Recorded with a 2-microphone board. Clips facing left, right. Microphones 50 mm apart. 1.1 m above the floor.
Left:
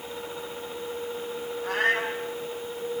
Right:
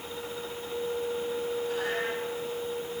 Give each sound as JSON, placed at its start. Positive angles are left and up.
{"t": 1.6, "sound": "a cat meowing", "side_deg": 60, "distance_m": 5.0}